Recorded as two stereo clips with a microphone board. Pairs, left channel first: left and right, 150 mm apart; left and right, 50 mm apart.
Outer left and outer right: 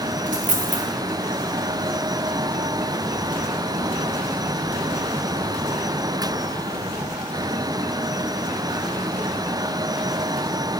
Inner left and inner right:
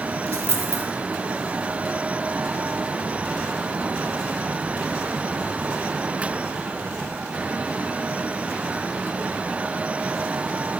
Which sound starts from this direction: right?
A dropped coin, at 0.3 s.